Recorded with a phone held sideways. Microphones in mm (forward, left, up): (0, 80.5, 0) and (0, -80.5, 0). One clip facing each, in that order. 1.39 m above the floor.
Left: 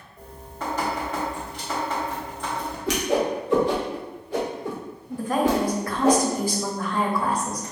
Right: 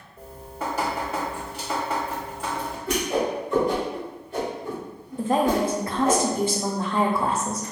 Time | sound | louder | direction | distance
0.2 | dripping | right 2 dB | 10° right (ahead or behind) | 1.0 m
2.9 | a whoosh | left 2 dB | 75° left (ahead or behind) | 0.7 m
5.2 | a woman speaking | right 1 dB | 25° right (ahead or behind) | 0.5 m